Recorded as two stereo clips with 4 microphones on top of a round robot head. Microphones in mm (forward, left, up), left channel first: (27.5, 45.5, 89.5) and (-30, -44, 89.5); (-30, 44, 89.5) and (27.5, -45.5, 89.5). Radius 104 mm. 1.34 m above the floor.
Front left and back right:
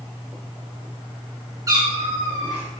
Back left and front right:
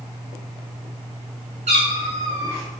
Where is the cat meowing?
65° right, 0.8 m; by 2.7 s 130° right, 1.1 m.